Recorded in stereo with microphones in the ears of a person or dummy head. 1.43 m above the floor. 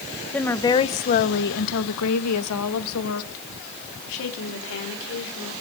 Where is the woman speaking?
5° left (ahead or behind), 1.2 m; by 5.5 s 65° left (ahead or behind), 4 m.